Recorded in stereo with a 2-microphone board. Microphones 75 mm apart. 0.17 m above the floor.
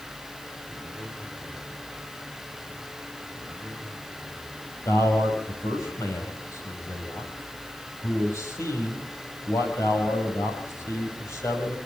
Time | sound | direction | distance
4.8 | a man speaking | 45° left (ahead or behind) | 7 m